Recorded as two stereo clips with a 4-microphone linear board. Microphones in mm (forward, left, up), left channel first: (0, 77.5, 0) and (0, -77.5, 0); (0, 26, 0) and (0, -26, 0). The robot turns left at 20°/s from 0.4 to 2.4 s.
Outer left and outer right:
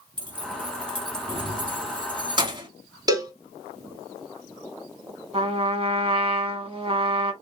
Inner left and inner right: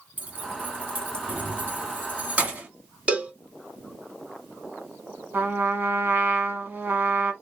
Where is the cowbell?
25° right (ahead or behind), 1.1 m.